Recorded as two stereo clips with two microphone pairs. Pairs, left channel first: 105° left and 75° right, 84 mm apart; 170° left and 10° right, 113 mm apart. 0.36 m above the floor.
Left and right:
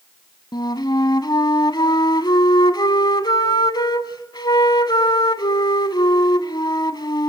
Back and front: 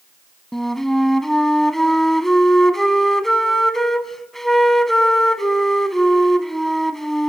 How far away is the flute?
About 0.9 m.